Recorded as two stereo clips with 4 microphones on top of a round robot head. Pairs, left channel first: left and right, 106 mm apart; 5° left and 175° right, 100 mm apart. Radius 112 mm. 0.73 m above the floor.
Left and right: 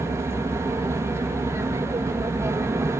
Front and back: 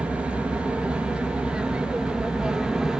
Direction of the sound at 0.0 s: 110° right.